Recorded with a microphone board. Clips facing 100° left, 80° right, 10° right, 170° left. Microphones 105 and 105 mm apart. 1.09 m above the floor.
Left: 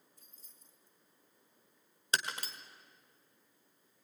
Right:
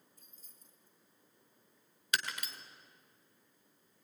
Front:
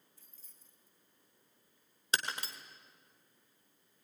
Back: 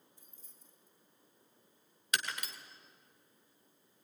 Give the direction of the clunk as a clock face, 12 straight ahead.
No clunk in this recording.